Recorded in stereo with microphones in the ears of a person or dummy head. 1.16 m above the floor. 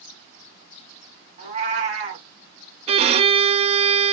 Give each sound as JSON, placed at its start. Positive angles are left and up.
{"t": 1.4, "sound": "a cat meowing", "side_deg": -30, "distance_m": 1.4}
{"t": 2.9, "sound": "a violin", "side_deg": -30, "distance_m": 0.5}